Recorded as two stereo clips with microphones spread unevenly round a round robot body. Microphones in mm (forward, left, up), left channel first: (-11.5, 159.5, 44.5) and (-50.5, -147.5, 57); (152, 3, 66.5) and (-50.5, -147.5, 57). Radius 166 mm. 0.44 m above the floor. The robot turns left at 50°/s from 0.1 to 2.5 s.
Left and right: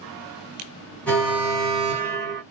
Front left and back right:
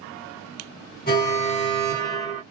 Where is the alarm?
Straight ahead, 1.6 m; by 2.4 s 65° right, 1.6 m.